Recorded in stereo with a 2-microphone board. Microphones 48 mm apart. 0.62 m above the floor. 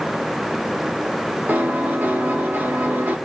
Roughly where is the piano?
Right.